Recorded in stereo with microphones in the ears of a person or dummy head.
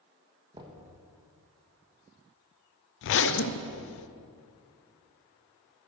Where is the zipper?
60° left (ahead or behind), 0.5 m.